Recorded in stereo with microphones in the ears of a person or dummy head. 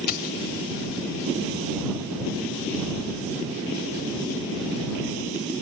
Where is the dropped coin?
55° left (ahead or behind).